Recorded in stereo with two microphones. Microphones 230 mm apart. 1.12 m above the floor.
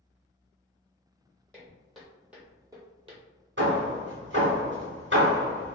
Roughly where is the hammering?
Right.